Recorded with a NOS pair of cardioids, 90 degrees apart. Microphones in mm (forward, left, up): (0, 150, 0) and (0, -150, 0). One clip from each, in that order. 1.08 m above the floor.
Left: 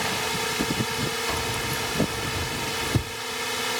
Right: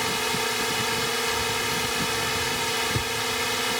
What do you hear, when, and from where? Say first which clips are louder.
0.0 s a drone: right 1 dB; 20° right
1.3 s keys jangling: right 2 dB; 50° left